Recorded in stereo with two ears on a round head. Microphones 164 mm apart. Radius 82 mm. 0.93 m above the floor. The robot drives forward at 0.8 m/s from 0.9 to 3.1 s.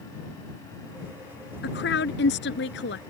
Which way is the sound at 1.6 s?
65° left (ahead or behind).